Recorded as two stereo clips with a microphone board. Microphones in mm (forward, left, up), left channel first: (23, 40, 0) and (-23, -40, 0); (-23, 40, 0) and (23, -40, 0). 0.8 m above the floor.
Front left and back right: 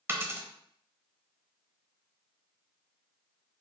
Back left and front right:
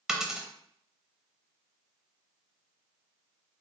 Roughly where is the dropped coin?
Behind right.